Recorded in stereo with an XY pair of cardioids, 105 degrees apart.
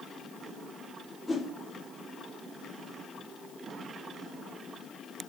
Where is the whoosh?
20° left, 2.5 m.